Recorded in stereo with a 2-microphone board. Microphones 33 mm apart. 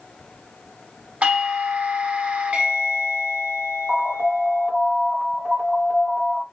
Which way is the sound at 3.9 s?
25° right (ahead or behind).